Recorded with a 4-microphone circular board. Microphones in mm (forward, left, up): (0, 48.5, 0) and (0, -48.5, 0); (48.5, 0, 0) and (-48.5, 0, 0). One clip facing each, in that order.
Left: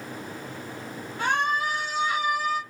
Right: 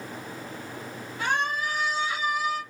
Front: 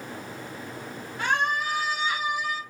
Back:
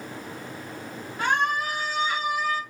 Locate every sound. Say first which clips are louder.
1.2 s a scream: left 2 dB, back 2 dB; 90° left, 2 m; by 2.6 s 60° left, 1.1 m